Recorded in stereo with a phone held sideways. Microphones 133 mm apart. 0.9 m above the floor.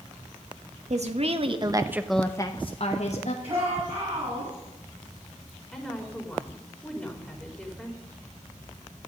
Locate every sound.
0.9 s a woman speaking: 60° right (ahead or behind), 1.5 m; by 3.3 s 65° left (ahead or behind), 1.5 m
3.4 s a shout: 45° right (ahead or behind), 8 m
5.7 s a woman speaking: 5° left (ahead or behind), 3.5 m